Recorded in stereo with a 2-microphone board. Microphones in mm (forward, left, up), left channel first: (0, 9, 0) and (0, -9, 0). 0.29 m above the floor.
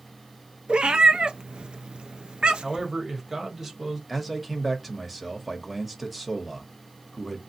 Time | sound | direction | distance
0.7 | a cat meowing | 80° right | 0.5 m
2.6 | a man speaking | 15° right (ahead or behind) | 1.2 m
4.1 | a man speaking | 10° right (ahead or behind) | 0.9 m